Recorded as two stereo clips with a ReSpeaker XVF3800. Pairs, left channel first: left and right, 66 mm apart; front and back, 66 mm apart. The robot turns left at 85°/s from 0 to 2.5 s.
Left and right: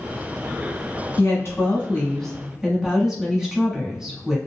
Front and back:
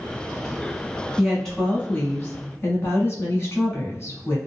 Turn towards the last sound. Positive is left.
turn(degrees=-10)